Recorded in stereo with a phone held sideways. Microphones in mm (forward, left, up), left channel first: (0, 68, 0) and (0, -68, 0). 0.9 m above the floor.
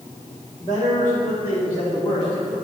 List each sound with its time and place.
0.6 s a man speaking: 55° left (ahead or behind), 1.5 m; by 2.5 s 65° left (ahead or behind), 2.5 m